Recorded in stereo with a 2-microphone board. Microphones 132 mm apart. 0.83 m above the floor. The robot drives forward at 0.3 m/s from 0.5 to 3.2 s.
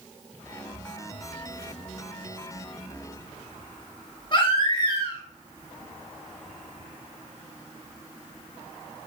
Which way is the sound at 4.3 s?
35° left (ahead or behind).